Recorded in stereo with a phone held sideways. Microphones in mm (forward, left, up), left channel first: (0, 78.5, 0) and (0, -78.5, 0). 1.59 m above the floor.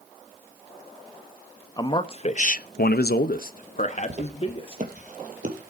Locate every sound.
1.8 s a man speaking: 25° left (ahead or behind), 1.1 m; by 4.8 s 35° left (ahead or behind), 1.8 m
4.1 s footsteps: 45° right (ahead or behind), 2.5 m; by 5.7 s 60° right (ahead or behind), 3 m